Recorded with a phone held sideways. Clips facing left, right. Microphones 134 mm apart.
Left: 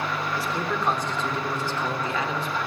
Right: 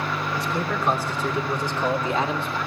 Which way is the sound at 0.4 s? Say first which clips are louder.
Right 2 dB; centre (ahead or behind).